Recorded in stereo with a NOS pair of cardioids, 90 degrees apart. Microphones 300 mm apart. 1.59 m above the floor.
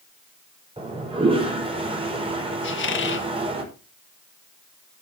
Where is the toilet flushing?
20° right, 5.5 m.